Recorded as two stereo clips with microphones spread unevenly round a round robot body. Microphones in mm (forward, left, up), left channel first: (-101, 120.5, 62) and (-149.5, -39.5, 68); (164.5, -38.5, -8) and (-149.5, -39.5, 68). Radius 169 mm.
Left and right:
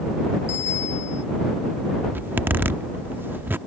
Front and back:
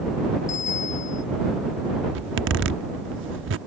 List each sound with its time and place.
0.5 s a bicycle bell: 70° left
2.1 s a zipper: straight behind